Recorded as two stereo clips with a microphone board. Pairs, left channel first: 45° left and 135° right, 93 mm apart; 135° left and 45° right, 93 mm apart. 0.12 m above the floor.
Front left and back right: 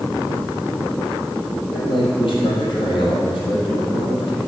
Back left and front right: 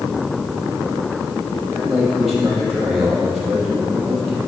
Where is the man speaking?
45° left, 4 m.